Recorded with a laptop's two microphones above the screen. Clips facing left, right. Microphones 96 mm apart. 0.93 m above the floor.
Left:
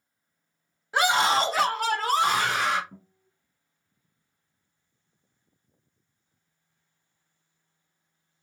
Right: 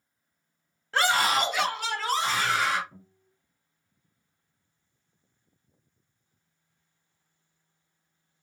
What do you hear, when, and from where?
0.9 s a scream: 10° left (ahead or behind), 0.6 m; by 2.8 s 50° left (ahead or behind), 1.0 m
2.9 s a guitar: 50° left (ahead or behind), 1.8 m